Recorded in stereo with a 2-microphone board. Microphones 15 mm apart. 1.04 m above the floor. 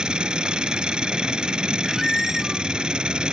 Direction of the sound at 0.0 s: 80° right.